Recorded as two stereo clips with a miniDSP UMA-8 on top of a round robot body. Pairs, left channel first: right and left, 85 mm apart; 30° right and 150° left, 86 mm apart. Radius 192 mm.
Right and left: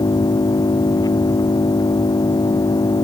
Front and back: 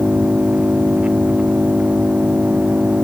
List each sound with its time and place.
0.0 s an engine running: 135° right